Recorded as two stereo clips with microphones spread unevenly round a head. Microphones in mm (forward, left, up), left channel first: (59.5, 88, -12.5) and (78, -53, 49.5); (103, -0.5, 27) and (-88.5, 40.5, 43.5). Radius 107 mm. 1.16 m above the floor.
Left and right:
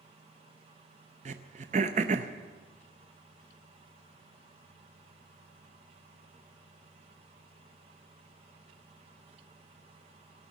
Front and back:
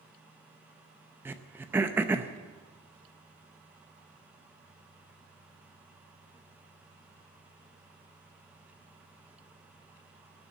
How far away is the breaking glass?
I don't hear breaking glass.